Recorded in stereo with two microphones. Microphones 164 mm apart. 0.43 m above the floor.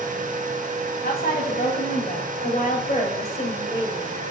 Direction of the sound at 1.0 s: 70° left (ahead or behind).